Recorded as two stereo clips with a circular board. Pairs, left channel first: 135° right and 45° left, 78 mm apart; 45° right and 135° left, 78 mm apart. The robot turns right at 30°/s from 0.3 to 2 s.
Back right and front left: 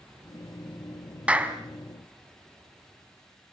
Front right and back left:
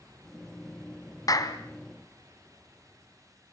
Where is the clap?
25° right, 1.9 m; by 1.6 s 15° right, 1.9 m.